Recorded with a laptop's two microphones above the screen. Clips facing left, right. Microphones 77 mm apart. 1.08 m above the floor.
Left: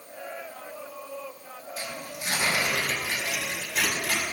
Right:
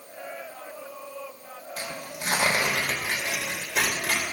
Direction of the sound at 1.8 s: 80° right.